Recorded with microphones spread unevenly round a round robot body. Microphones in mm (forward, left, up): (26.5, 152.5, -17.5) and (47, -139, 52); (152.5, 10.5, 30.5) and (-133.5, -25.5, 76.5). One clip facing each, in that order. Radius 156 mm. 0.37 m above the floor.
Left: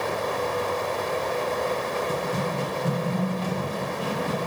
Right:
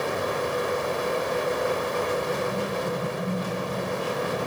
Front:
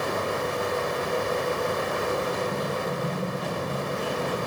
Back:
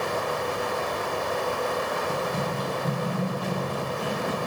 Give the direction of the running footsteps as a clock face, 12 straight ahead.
8 o'clock.